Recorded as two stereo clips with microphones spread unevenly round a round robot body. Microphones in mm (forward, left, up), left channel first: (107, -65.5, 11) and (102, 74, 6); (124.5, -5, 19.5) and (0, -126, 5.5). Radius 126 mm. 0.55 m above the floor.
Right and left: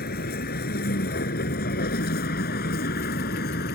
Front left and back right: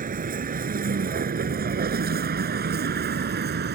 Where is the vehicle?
95° right; by 3.8 s 115° right.